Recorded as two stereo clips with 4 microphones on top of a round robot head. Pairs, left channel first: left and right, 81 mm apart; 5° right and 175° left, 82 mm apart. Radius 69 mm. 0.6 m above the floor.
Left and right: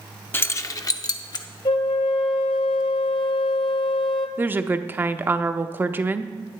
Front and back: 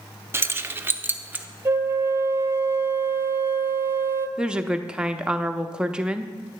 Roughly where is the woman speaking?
Behind right.